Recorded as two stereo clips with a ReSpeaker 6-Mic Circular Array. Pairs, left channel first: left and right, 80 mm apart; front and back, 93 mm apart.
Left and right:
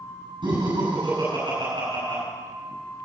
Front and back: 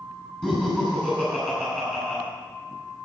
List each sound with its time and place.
0.4 s laughter: 85° right, 6 m